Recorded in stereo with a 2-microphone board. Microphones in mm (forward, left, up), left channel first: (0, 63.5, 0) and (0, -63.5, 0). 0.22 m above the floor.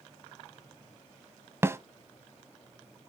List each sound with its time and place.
1.6 s a snare drum: 20° right (ahead or behind), 0.7 m